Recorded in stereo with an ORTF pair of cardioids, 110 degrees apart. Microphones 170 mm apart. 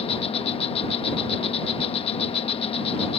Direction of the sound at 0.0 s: 35° left.